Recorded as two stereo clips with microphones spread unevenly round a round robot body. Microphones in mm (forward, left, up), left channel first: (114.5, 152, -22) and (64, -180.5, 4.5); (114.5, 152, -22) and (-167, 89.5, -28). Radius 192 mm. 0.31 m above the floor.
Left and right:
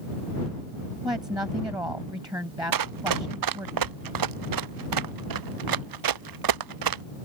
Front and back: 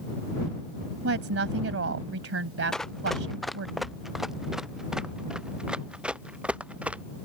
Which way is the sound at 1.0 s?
Straight behind.